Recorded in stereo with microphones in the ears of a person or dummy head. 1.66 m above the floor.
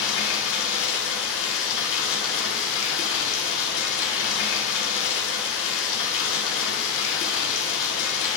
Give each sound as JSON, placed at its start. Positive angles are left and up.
{"t": 0.0, "sound": "running water", "side_deg": 70, "distance_m": 1.1}